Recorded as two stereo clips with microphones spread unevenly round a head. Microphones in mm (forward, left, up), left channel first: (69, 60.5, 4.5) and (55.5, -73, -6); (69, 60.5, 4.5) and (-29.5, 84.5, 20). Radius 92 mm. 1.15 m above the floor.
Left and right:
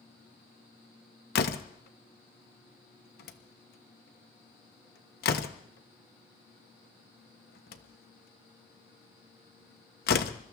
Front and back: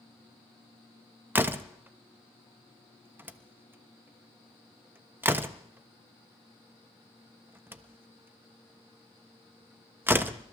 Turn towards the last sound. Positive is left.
turn(degrees=95)